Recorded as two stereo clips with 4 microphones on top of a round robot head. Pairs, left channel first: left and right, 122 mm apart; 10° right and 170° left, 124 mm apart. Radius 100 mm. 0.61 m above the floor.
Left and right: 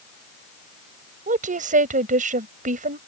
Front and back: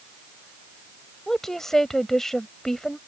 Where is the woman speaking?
95° right.